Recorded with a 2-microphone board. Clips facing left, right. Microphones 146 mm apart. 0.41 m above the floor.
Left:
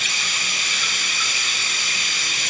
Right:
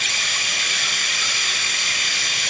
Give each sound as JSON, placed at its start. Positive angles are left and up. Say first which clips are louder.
{"t": 0.0, "sound": "running water", "louder": "right 1 dB", "side_deg": -65, "distance_m": 0.9}